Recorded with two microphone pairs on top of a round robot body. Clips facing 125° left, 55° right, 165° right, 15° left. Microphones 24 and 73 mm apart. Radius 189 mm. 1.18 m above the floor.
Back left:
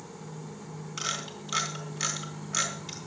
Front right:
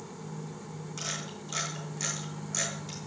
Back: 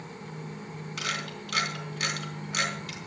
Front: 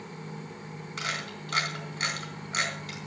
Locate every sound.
1.0 s a camera shutter: 70° left, 3 m